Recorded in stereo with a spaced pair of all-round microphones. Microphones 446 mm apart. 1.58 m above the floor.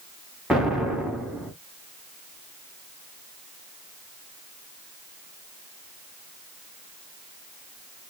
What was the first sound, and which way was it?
An explosion, centre (ahead or behind).